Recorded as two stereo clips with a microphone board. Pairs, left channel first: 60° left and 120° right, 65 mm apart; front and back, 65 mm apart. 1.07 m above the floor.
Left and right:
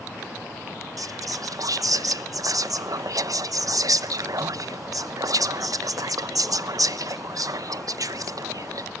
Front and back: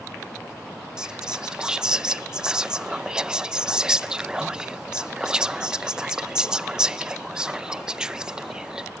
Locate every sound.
1.0 s whispering: 105° right, 0.7 m